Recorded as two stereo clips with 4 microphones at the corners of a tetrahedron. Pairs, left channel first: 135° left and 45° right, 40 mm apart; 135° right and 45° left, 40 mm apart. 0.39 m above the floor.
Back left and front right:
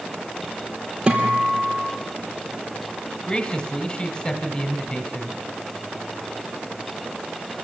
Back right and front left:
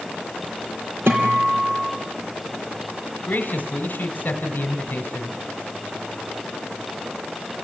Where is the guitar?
25° left, 3.5 m.